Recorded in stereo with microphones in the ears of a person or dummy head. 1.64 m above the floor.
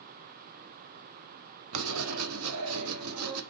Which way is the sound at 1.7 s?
80° right.